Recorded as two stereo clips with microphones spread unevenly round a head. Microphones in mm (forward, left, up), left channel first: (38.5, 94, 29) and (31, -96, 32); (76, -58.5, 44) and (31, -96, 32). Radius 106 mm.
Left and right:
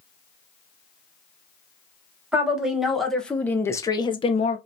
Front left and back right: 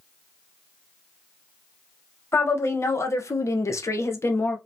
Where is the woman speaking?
5° right, 1.5 m; by 4.6 s 95° left, 0.7 m.